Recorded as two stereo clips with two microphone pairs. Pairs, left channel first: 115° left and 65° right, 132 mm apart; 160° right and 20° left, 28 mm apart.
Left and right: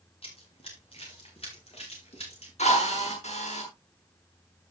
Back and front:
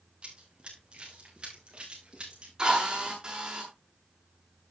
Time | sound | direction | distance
0.2 | running footsteps | 70° left | 6 m
2.6 | a drill | 80° left | 7 m